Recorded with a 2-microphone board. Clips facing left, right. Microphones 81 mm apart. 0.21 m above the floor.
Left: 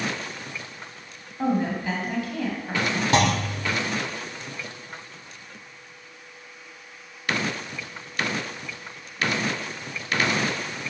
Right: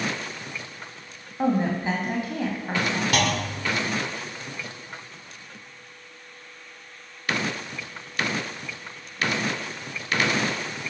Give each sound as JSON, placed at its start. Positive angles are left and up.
{"t": 1.4, "sound": "a woman speaking", "side_deg": -25, "distance_m": 1.1}
{"t": 3.1, "sound": "a clunk", "side_deg": 30, "distance_m": 0.6}